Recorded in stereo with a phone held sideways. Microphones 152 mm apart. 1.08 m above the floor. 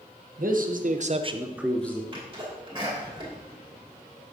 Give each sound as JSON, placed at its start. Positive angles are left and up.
{"t": 0.4, "sound": "a man speaking", "side_deg": -65, "distance_m": 0.9}
{"t": 2.1, "sound": "a sneeze", "side_deg": -35, "distance_m": 2.0}